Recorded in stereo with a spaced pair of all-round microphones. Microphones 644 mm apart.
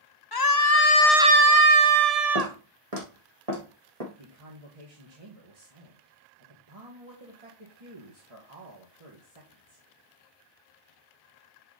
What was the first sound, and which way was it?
A scream, 35° left (ahead or behind).